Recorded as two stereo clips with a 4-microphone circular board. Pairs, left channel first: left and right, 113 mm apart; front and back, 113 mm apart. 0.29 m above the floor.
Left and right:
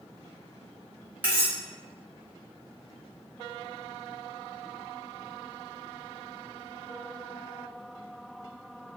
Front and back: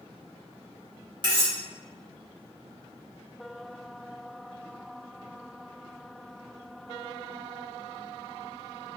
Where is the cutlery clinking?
160° right, 0.9 m.